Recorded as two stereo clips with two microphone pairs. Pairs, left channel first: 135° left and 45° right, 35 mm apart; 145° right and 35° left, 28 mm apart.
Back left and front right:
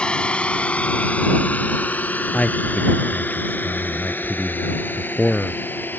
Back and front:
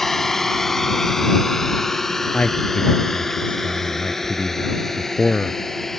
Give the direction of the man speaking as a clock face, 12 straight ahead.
6 o'clock.